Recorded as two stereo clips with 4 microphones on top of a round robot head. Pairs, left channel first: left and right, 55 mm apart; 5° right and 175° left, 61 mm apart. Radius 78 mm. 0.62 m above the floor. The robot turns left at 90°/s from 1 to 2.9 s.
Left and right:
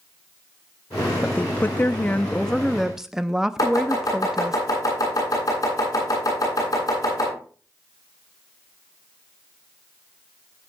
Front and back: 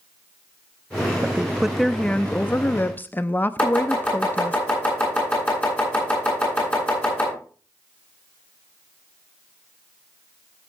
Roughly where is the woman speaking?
Behind left.